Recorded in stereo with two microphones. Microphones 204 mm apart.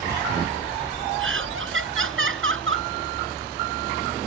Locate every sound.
1.2 s laughter: 80° right